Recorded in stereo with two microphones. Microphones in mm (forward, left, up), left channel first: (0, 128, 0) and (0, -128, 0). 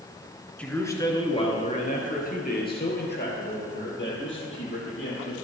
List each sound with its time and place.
0.6 s a man speaking: 5° left (ahead or behind), 1.6 m; by 5.3 s 50° left (ahead or behind), 4.5 m